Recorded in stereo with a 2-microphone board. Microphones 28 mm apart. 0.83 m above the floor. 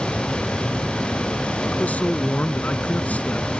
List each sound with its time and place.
1.7 s a man speaking: 60° left (ahead or behind)